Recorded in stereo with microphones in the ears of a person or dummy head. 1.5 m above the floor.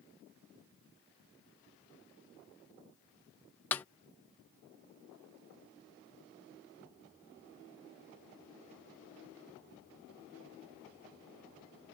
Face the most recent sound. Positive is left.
turn(degrees=10)  # may be behind; listen again after turning